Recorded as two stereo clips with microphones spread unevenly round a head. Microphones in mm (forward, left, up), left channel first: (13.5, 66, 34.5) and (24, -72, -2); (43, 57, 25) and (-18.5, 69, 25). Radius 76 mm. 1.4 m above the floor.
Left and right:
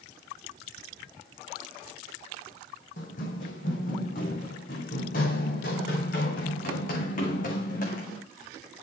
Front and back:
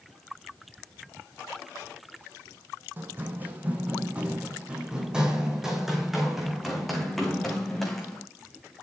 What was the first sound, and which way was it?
Running footsteps, 115° left.